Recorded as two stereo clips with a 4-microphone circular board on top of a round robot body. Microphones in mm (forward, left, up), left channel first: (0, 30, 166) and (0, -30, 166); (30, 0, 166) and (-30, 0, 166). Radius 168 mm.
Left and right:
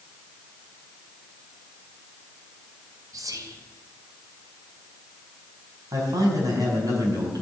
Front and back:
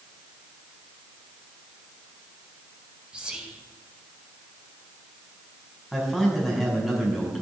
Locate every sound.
3.1 s whispering: 105° right, 3.5 m
5.9 s a man speaking: 95° right, 6 m